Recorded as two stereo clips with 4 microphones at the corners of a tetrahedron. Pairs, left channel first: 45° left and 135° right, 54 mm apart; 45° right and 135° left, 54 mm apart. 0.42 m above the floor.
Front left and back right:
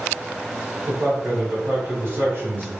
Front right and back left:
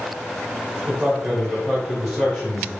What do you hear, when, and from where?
0.9 s a man speaking: 140° right, 1.5 m